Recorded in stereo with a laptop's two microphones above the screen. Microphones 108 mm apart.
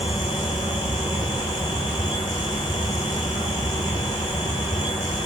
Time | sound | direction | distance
0.0 | a fan | 45° left (ahead or behind) | 2.5 m